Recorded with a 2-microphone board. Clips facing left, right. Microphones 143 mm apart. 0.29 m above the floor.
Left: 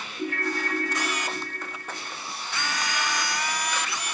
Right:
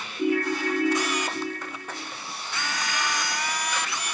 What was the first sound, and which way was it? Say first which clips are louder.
A ringtone: right 6 dB; 10° right (ahead or behind).